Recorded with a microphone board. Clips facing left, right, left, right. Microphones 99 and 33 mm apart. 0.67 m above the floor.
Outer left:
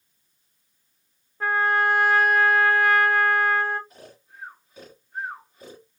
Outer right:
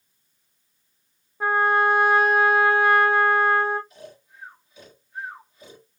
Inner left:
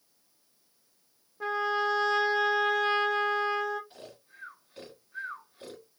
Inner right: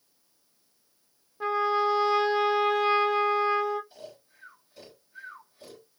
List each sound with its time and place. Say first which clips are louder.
1.4 s a trumpet: outer right 2 dB, inner right 3 dB; 15° right (ahead or behind), 0.7 m
3.9 s snoring: outer right 3 dB, inner right 2 dB; 45° left (ahead or behind), 1.7 m